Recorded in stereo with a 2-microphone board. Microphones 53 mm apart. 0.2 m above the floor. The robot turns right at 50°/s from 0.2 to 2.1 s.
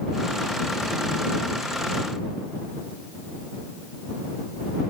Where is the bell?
I don't hear a bell.